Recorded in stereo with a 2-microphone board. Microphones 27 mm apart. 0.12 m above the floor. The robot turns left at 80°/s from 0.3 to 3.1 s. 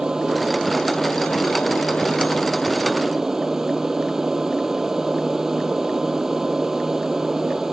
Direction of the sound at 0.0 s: 160° right.